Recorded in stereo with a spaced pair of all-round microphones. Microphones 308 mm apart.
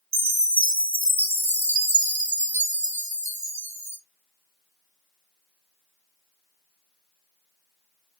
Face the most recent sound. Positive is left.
turn(degrees=-60)  # may be behind; listen again after turning